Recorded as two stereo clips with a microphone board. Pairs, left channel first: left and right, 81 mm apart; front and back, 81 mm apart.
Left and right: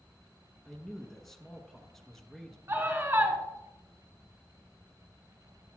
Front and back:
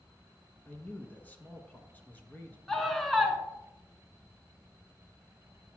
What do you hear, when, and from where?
0.7 s a man speaking: 10° left, 1.0 m
2.7 s a scream: 85° right, 1.7 m